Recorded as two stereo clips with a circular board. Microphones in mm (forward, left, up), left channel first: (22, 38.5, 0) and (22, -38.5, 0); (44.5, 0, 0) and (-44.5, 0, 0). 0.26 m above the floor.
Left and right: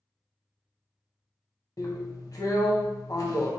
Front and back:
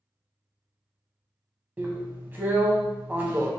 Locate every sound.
1.8 s a drill: 115° left, 0.6 m